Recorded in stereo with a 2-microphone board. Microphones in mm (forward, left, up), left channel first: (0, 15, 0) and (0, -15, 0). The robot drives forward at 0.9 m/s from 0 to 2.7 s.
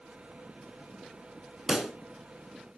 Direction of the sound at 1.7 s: 20° right (ahead or behind).